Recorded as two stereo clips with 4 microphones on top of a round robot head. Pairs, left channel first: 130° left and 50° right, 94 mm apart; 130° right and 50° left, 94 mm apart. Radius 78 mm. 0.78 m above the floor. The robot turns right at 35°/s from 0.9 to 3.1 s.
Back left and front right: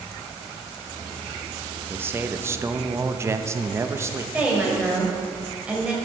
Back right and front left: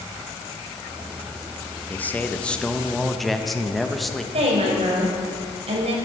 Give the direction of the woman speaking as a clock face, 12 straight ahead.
11 o'clock.